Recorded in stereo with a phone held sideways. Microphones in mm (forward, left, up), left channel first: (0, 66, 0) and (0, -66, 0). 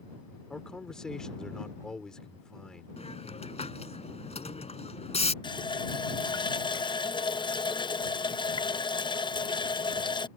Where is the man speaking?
5° left (ahead or behind).